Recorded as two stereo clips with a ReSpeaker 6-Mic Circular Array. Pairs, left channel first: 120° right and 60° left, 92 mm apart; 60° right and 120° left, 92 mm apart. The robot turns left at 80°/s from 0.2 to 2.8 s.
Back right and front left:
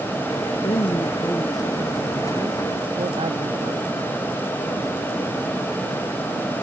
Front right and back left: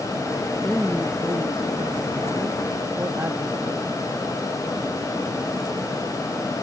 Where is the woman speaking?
135° right; by 4.0 s 50° left.